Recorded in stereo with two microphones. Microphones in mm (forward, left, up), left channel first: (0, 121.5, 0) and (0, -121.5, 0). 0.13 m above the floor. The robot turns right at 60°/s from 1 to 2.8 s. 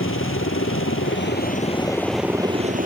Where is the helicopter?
110° left; by 2.9 s 140° right.